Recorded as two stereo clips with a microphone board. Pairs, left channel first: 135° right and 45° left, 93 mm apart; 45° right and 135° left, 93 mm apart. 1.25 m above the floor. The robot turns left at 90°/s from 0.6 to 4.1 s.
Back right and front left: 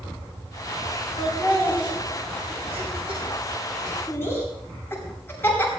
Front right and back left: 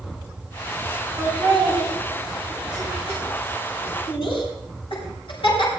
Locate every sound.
1.2 s laughter: 165° right, 8 m; by 5.7 s 70° right, 8 m